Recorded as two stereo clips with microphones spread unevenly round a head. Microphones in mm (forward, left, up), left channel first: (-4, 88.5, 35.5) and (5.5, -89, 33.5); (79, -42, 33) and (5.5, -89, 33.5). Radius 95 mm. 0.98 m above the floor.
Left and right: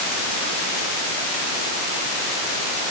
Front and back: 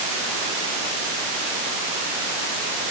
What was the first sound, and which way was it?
Only background noise.